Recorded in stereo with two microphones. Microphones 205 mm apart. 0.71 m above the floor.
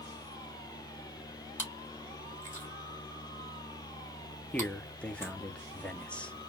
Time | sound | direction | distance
1.6 | chewing | 10° left (ahead or behind) | 2 m
4.5 | a man speaking | 5° left (ahead or behind) | 0.8 m